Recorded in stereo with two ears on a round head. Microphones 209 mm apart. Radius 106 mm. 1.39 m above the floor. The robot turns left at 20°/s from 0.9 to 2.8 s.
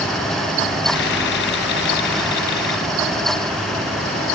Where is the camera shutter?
I don't hear a camera shutter.